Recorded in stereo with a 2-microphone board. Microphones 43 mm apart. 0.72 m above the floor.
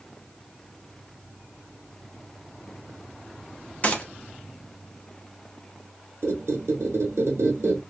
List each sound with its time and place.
3.8 s a gunshot: 35° left (ahead or behind), 0.5 m
6.2 s a squeak: 75° right (ahead or behind), 0.8 m